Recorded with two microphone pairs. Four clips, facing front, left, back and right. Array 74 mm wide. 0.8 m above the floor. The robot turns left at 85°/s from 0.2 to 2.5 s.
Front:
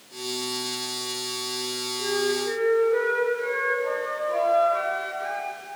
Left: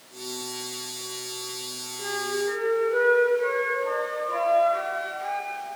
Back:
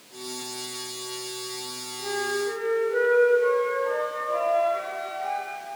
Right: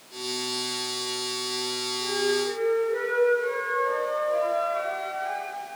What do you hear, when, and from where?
2.0 s a flute: 65° left, 5 m; by 5.8 s 20° left, 5 m